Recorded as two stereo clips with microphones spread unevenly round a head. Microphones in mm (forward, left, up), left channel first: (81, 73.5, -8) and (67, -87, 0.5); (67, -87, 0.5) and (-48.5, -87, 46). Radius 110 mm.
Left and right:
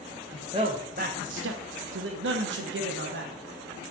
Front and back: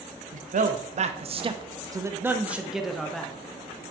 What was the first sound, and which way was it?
A man speaking, 170° right.